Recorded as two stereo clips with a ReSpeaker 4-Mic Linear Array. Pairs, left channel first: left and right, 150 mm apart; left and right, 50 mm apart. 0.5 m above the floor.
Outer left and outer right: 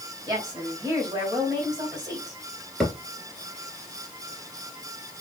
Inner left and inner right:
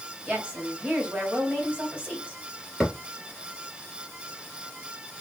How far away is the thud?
About 2.5 m.